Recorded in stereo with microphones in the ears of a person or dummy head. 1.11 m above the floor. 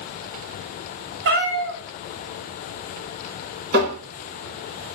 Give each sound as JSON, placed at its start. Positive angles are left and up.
{"t": 1.2, "sound": "a cat meowing", "side_deg": -60, "distance_m": 0.6}
{"t": 3.7, "sound": "tapping", "side_deg": -50, "distance_m": 2.0}